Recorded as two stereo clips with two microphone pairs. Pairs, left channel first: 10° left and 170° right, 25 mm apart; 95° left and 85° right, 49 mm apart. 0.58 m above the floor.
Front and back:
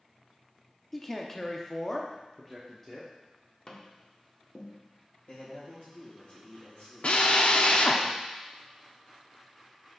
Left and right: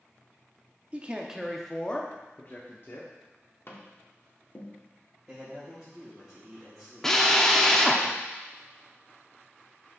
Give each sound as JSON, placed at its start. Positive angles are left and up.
{"t": 0.9, "sound": "a man speaking", "azimuth_deg": -65, "distance_m": 0.7}
{"t": 3.7, "sound": "tapping", "azimuth_deg": 65, "distance_m": 0.9}
{"t": 5.3, "sound": "a man speaking", "azimuth_deg": 5, "distance_m": 3.0}
{"t": 7.0, "sound": "a drill", "azimuth_deg": 15, "distance_m": 0.6}